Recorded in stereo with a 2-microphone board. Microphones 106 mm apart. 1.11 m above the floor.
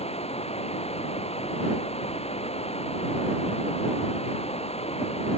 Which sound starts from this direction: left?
Running water, at 0.0 s.